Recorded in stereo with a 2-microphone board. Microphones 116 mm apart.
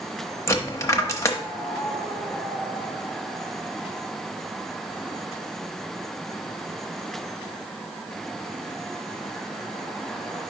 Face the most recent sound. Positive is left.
turn(degrees=25)  # may be behind; listen again after turning